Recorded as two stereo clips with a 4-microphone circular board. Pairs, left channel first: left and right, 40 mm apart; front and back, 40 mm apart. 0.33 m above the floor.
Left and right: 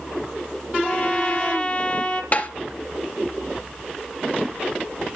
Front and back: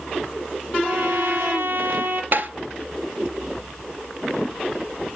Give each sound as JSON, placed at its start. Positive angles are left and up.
{"t": 0.8, "sound": "a trumpet", "azimuth_deg": 150, "distance_m": 2.5}
{"t": 2.3, "sound": "tapping", "azimuth_deg": 140, "distance_m": 2.0}